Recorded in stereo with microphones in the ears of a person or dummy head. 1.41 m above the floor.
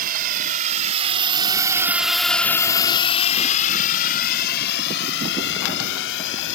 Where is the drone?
50° right (ahead or behind); by 6.5 s 70° left (ahead or behind).